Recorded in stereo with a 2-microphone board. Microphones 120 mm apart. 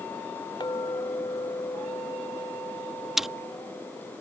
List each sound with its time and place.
0.6 s a clink: 35° left (ahead or behind)
3.2 s chewing: 5° right (ahead or behind)